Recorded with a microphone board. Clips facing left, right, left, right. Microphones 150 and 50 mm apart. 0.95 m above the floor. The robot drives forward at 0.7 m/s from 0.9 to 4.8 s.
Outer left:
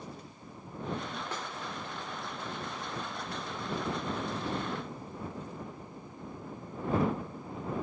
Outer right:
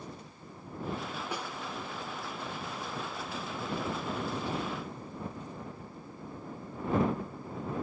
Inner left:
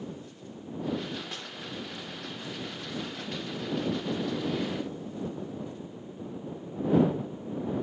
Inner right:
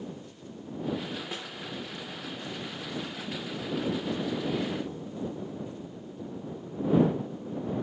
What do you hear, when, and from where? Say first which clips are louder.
1.3 s a snare drum: outer right 2 dB, inner right 2 dB; 10° right (ahead or behind), 1.2 m